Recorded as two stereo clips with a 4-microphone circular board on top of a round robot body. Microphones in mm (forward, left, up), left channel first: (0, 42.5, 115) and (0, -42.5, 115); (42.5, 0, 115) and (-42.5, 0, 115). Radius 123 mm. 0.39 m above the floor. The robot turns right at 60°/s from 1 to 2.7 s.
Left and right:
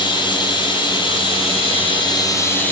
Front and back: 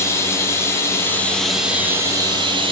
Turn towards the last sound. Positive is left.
turn(degrees=165)